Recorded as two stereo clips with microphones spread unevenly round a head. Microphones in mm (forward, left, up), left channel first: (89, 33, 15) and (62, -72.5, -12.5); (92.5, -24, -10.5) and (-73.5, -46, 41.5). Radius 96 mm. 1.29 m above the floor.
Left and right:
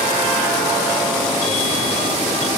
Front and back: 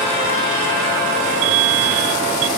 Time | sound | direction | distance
1.4 | an alarm | 150° left | ?